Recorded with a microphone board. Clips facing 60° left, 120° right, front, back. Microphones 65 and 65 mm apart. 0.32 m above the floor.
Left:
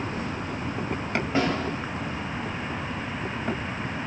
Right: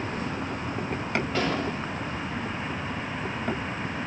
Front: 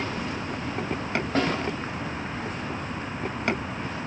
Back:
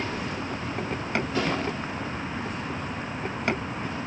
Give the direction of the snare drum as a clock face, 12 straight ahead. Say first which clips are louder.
Left 4 dB, front 4 dB; 12 o'clock.